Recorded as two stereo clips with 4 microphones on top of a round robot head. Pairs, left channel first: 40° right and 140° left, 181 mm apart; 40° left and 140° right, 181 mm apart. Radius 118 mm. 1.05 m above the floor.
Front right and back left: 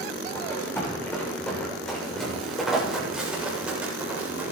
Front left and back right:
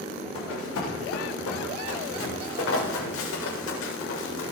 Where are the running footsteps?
35° left, 7 m; by 4.5 s 55° left, 8 m.